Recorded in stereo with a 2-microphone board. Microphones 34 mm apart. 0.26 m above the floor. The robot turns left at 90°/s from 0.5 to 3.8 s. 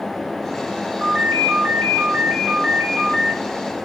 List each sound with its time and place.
1.0 s a ringtone: 20° right, 2.5 m; by 3.4 s 125° left, 2.5 m